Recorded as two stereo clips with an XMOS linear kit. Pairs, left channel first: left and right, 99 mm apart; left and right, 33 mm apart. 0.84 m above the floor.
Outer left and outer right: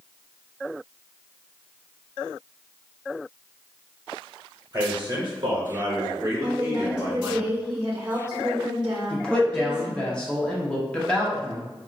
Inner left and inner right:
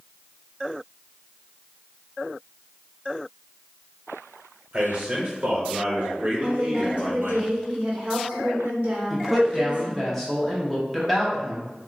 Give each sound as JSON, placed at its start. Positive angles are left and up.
{"t": 4.7, "sound": "a man speaking", "side_deg": -40, "distance_m": 0.8}
{"t": 6.4, "sound": "a woman speaking", "side_deg": -45, "distance_m": 0.7}
{"t": 9.1, "sound": "a woman speaking", "side_deg": 10, "distance_m": 0.7}